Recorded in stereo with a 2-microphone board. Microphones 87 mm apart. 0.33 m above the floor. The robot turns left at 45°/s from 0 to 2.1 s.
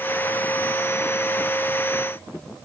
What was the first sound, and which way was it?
Only background noise.